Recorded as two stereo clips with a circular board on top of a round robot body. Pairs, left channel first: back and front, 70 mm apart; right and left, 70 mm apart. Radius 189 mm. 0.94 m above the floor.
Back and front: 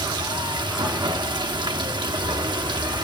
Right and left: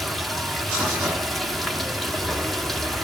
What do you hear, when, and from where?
0.0 s running water: 5° right, 1.6 m